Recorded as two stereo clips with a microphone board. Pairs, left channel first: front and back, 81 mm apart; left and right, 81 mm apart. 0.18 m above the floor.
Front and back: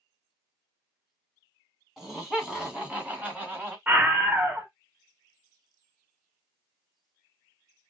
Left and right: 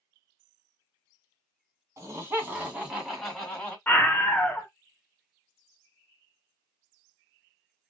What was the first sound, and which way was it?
Laughter, 90° right.